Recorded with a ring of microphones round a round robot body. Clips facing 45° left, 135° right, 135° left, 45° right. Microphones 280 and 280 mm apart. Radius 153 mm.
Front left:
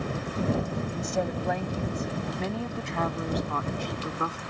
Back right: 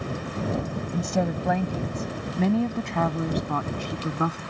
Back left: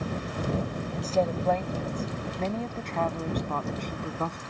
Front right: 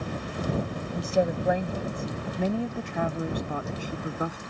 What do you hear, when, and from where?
0.9 s a woman speaking: 120° right; by 4.4 s 125° right